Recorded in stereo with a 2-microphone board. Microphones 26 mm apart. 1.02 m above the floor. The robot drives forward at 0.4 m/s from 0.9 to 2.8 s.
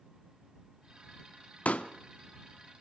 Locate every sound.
1.6 s a pop: 65° left (ahead or behind), 0.8 m